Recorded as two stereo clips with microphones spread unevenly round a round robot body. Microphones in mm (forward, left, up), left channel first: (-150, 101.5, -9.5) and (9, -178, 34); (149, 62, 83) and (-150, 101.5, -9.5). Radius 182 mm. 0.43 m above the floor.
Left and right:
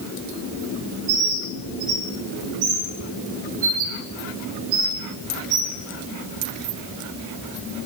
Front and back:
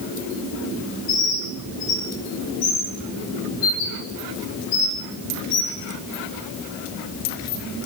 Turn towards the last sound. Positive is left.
turn(degrees=-65)